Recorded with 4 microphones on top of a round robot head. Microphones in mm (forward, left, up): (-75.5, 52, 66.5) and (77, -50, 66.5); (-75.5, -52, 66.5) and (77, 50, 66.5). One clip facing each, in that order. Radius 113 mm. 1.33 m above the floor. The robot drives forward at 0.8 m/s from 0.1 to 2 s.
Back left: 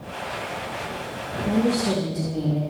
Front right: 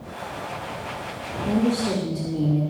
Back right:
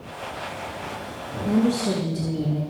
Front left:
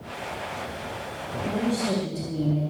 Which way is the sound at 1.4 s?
125° right.